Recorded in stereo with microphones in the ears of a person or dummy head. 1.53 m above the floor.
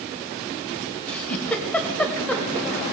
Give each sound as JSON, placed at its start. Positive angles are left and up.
{"t": 1.1, "sound": "a giggle", "side_deg": 5, "distance_m": 2.0}